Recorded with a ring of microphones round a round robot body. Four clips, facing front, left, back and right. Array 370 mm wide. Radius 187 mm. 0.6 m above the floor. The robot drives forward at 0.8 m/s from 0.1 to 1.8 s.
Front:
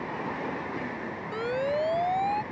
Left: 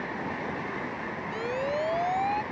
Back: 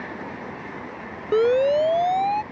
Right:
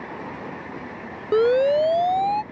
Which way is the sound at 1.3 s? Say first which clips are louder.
Right 14 dB, back 11 dB; 130° right.